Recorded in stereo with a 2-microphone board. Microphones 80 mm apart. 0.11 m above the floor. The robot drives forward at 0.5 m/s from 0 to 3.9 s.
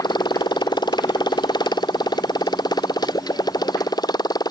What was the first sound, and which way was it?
A motorcycle, 70° left (ahead or behind).